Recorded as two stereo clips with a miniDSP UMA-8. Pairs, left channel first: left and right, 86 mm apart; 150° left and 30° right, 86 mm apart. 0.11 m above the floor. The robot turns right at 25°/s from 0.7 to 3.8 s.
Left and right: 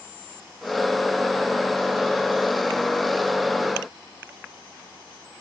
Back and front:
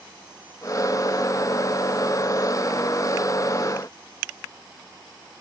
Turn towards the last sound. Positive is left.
No sound to turn to.